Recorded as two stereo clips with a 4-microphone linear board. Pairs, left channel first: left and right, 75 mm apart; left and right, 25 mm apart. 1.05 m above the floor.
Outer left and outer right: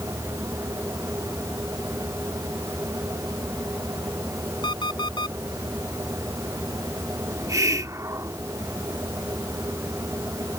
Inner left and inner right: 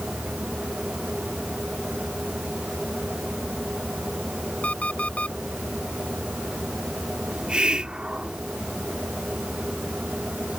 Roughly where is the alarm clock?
Left.